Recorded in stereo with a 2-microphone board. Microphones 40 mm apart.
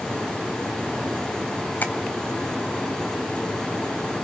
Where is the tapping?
50° left (ahead or behind), 1.6 m.